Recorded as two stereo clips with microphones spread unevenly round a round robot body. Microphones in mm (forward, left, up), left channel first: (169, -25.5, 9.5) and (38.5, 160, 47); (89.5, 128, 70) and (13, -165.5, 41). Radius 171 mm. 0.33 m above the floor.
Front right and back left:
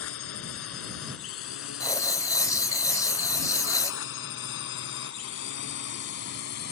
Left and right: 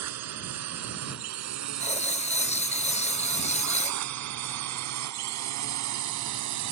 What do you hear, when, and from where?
0.0 s a drone: 75° right; by 6.7 s 95° right
1.8 s writing: 5° left